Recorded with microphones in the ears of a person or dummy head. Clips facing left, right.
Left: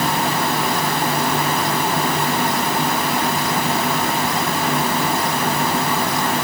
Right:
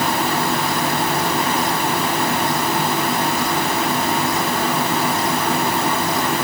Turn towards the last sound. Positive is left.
No sound to turn to.